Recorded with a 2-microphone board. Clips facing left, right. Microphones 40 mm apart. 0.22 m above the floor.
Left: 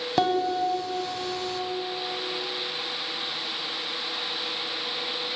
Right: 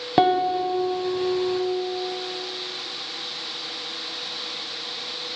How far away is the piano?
About 1.1 m.